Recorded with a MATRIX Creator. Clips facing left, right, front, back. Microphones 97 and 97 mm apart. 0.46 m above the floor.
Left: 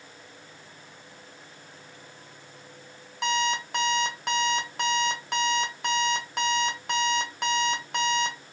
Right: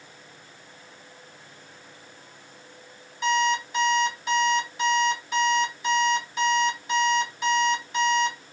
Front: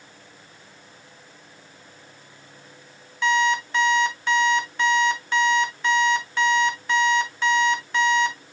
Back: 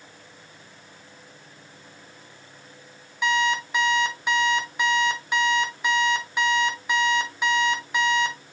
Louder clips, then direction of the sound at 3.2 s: Right 4 dB, front 2 dB; 100° left.